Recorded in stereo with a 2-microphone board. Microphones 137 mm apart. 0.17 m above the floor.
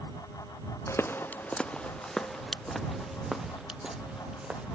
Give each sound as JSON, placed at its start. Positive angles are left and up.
{"t": 0.9, "sound": "footsteps", "side_deg": 20}